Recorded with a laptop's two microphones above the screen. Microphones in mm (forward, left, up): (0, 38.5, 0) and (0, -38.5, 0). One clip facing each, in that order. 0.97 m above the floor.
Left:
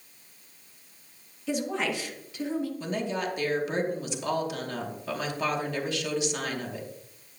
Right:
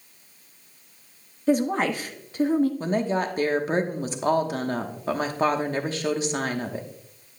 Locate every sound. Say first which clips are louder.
1.5 s a woman speaking: right 7 dB; 40° right (ahead or behind), 1.2 m
2.8 s a woman speaking: right 6 dB; 40° right (ahead or behind), 1.0 m